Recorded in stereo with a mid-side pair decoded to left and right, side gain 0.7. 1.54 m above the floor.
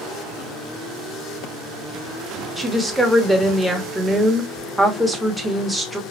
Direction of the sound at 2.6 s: 5° right.